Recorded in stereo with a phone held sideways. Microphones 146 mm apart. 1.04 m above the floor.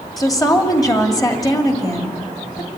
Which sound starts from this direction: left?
A woman speaking, at 0.2 s.